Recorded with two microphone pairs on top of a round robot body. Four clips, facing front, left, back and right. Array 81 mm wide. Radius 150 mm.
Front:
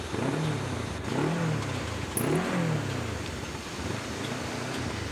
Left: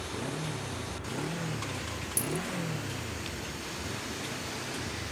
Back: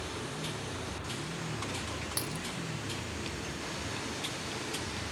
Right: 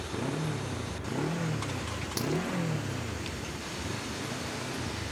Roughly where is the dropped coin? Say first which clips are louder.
Right 4 dB, front 12 dB; behind right.